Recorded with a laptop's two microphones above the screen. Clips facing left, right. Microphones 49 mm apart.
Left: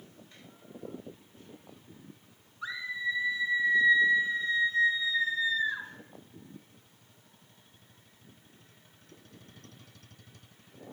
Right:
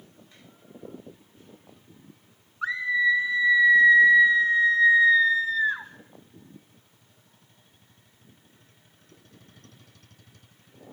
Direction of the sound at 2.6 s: 55° right (ahead or behind).